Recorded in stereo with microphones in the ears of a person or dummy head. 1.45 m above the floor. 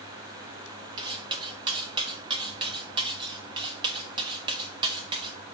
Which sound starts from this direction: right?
Cutlery clinking, at 1.0 s.